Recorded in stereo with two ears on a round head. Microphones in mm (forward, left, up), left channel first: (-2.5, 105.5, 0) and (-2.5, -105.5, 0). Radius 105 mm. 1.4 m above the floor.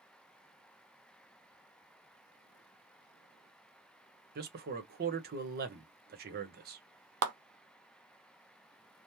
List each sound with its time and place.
4.3 s a man speaking: 40° right (ahead or behind), 0.8 m
7.2 s a clap: 65° right (ahead or behind), 0.8 m